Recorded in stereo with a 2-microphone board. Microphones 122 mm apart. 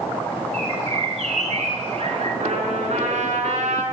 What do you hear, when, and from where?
0.5 s a bird: 70° right (ahead or behind), 2.5 m
2.4 s a trumpet: 75° right (ahead or behind), 5 m